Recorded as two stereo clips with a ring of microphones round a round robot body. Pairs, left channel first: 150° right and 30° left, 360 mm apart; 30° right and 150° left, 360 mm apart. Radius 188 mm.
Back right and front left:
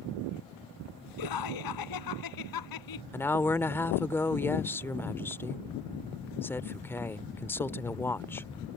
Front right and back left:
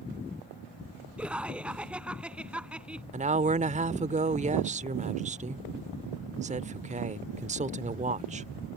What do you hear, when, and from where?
1.2 s laughter: 125° right
3.1 s a woman speaking: 140° left